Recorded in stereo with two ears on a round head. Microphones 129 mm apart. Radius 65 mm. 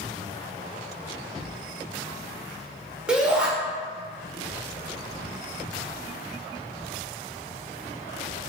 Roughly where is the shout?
Centre.